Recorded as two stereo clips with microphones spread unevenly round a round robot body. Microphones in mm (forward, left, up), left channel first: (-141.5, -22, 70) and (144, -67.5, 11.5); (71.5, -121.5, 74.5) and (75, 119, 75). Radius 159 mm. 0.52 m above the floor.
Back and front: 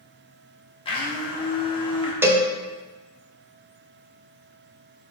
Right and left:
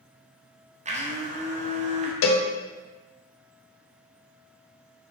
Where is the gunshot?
No gunshot in this recording.